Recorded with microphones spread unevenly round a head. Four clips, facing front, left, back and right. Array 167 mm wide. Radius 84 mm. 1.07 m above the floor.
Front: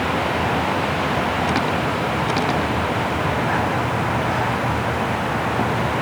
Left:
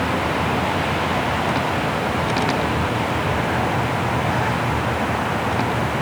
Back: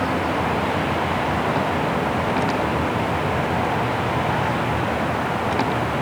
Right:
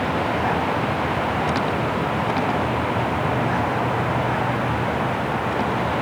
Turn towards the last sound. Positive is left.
No sound to turn to.